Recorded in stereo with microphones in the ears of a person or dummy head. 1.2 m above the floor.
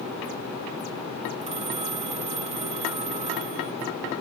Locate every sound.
1.4 s a phone ringing: 35° right (ahead or behind)